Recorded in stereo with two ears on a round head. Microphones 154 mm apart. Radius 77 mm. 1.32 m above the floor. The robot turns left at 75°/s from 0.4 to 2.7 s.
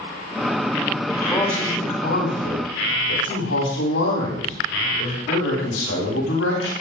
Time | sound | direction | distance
1.1 | a man speaking | 155° right | 9.5 m